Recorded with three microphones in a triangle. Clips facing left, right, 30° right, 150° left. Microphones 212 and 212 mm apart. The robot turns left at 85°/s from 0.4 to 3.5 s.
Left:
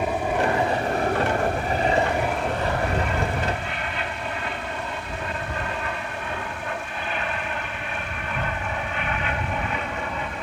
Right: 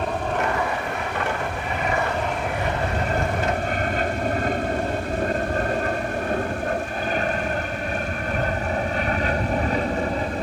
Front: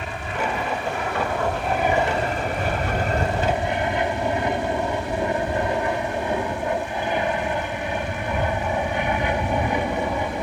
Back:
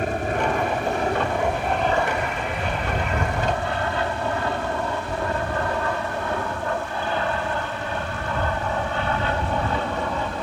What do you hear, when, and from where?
0.0 s an aircraft: 170° left; by 10.4 s 95° right